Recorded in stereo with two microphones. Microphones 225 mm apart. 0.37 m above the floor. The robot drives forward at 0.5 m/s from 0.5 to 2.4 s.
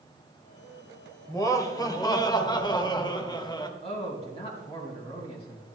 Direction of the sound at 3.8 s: 25° left (ahead or behind).